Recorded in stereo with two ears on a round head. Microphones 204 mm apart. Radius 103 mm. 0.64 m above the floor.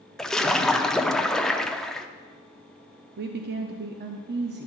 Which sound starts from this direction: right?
A woman speaking, at 3.2 s.